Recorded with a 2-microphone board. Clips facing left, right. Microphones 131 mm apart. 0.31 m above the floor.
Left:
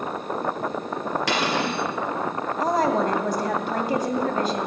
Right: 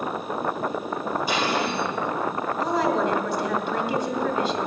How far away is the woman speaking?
About 1.6 m.